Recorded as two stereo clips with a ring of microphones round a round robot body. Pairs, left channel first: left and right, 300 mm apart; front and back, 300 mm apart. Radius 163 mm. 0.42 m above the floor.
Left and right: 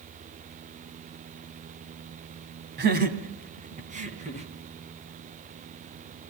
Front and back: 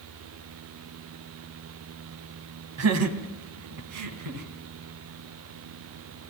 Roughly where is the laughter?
Behind right.